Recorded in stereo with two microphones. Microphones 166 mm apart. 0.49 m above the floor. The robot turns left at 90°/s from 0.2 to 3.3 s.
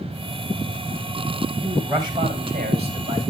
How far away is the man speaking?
About 3.5 m.